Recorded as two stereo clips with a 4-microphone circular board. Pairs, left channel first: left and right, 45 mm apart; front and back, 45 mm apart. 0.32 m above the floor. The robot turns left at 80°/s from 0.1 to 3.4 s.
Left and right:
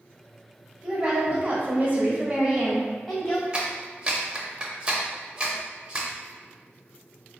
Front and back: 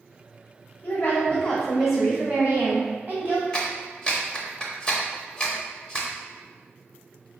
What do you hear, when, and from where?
0.8 s a woman speaking: 20° right, 1.1 m; by 3.4 s 130° left, 1.1 m
3.5 s a clap: 45° right, 0.7 m